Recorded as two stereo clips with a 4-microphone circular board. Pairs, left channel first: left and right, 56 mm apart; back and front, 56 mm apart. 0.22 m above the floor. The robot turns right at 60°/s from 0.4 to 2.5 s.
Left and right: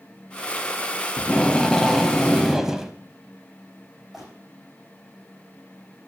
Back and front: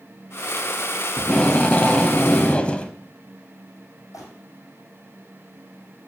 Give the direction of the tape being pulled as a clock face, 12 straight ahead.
8 o'clock.